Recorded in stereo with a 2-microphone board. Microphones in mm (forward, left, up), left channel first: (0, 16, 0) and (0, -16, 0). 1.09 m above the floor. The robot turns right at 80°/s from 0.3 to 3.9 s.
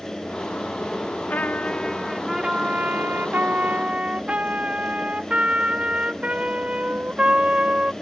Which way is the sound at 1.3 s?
110° left.